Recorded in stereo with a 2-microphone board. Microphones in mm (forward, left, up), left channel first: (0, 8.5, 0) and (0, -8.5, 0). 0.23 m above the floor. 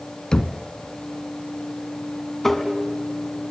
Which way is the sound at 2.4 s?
20° left (ahead or behind).